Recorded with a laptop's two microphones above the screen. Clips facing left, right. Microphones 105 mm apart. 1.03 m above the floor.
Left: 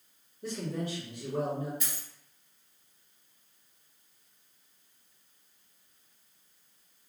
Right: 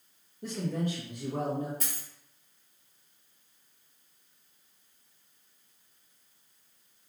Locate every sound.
0.4 s a man speaking: 50° right (ahead or behind), 0.8 m
1.8 s a dropped coin: 40° right (ahead or behind), 1.4 m